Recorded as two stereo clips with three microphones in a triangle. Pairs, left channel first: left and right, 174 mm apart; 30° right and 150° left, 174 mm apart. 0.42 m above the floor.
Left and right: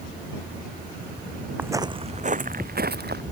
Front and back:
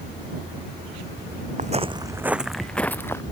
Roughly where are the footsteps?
Behind.